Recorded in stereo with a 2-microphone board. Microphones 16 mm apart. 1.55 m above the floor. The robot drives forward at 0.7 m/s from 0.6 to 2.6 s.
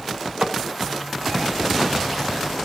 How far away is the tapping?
About 3.5 m.